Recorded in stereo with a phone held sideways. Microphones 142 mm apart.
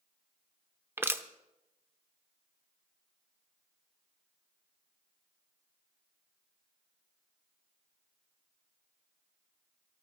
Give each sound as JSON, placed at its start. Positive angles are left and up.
{"t": 1.0, "sound": "crushing", "side_deg": -15, "distance_m": 0.7}